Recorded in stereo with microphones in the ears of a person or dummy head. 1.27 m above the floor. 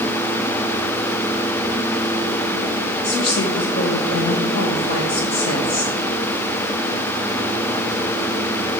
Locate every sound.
3.0 s a woman speaking: 50° left (ahead or behind), 1.6 m